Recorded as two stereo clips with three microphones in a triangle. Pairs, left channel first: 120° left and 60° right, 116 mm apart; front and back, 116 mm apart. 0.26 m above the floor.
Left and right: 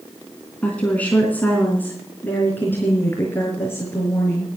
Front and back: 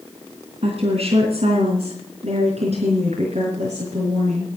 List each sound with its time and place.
0.6 s a woman speaking: 165° right, 3 m; by 4.5 s 170° right, 5 m